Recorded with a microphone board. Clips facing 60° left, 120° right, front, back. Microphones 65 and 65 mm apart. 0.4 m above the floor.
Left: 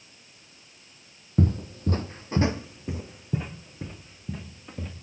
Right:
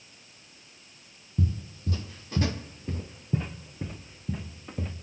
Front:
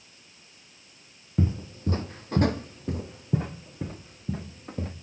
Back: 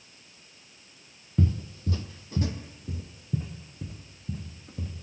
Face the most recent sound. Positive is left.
turn(degrees=-40)